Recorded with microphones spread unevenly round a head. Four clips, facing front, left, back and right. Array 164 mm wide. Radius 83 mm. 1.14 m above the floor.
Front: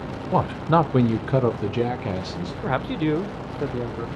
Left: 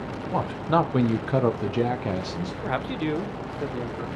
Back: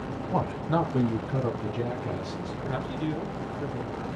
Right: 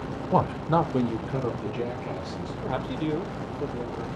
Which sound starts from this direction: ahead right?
A man speaking, at 0.3 s.